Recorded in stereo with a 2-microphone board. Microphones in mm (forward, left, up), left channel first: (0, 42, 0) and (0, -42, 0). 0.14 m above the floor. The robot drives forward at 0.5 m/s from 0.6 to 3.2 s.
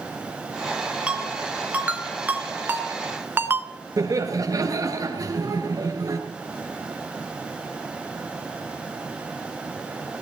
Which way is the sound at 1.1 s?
15° right (ahead or behind).